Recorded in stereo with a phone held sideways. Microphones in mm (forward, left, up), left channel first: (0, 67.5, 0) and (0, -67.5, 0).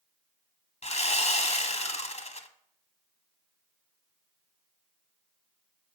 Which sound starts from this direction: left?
Sawing, at 0.8 s.